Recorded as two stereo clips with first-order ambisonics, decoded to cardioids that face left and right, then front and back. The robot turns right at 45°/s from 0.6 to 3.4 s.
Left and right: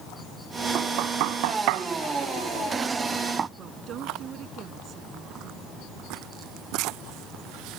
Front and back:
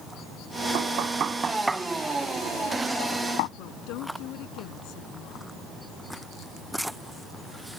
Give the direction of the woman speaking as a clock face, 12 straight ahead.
1 o'clock.